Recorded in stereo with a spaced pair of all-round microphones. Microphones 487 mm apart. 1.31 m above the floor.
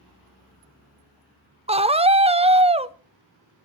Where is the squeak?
I don't hear a squeak.